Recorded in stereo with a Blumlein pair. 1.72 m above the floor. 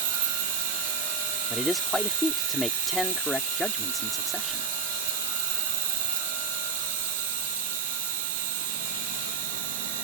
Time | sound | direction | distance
0.0 | an insect | 55° right | ?
1.5 | a man speaking | 5° left | ?